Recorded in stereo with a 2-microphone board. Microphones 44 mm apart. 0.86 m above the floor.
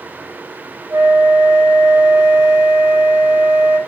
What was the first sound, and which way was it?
A flute, 55° right (ahead or behind).